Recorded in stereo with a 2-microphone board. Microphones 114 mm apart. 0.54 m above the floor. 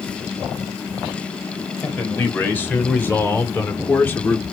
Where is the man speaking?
15° left (ahead or behind), 3 m.